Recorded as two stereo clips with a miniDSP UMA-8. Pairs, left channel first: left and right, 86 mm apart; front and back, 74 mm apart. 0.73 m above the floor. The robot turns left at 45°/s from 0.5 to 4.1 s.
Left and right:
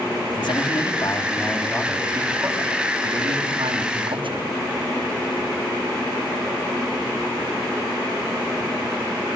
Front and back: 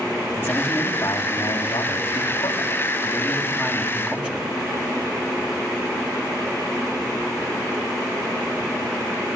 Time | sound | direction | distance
0.3 | a man speaking | 60° left | 5.5 m